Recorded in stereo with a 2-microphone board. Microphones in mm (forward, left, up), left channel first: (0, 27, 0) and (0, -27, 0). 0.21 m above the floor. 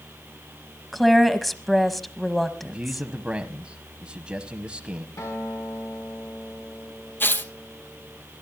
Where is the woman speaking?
Centre (ahead or behind), 1.0 m.